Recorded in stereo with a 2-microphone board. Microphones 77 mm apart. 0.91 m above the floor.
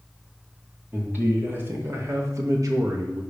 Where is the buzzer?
No buzzer in this recording.